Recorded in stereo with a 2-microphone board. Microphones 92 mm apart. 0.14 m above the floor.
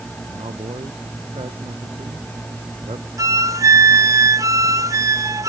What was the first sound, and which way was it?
A man speaking, 85° right.